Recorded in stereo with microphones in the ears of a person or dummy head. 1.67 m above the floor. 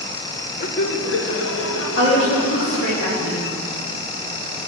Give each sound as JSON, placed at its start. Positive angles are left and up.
{"t": 0.6, "sound": "laughter", "side_deg": 45, "distance_m": 0.7}
{"t": 2.0, "sound": "a woman speaking", "side_deg": 70, "distance_m": 2.5}